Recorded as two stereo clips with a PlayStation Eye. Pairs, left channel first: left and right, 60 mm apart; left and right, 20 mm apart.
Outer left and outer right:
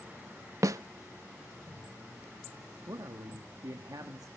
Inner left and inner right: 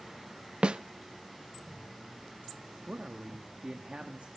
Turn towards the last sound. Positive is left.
turn(degrees=-75)  # may be behind; listen again after turning